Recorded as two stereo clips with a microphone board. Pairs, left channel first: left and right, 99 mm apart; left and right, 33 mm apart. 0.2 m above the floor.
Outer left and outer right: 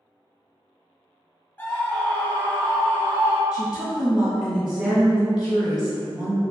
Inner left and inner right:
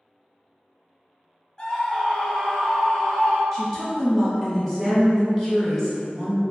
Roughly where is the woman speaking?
Centre.